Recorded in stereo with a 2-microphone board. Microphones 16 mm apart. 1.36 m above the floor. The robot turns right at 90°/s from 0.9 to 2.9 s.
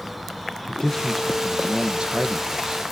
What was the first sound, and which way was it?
A man speaking, 150° left.